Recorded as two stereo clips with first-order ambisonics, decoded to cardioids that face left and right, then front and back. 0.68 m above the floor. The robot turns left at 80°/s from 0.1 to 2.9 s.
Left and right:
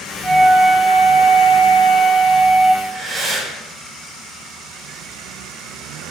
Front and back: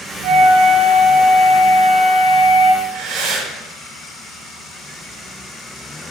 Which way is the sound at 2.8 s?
165° right.